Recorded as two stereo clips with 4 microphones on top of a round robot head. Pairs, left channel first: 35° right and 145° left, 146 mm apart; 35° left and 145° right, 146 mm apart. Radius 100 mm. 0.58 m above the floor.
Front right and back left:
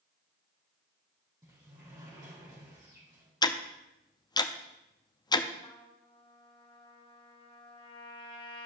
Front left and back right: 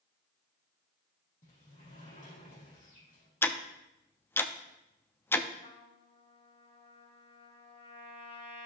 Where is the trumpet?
5° left, 1.7 m.